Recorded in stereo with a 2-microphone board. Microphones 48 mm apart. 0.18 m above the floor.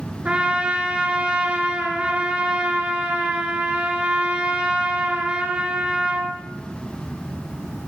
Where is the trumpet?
20° right (ahead or behind), 2 m.